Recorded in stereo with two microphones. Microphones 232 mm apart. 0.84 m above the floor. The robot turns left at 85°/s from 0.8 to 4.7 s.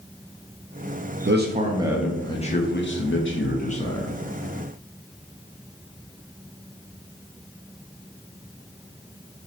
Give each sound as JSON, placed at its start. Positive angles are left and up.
{"t": 1.2, "sound": "a man speaking", "azimuth_deg": -110, "distance_m": 0.6}